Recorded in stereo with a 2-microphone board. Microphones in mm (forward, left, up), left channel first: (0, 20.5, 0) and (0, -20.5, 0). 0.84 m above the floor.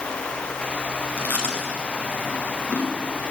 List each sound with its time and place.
1.2 s chewing: 35° left (ahead or behind), 7.5 m